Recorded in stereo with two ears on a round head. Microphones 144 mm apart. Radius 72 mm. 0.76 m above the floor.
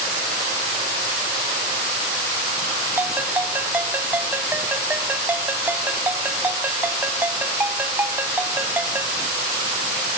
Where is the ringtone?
10° right (ahead or behind).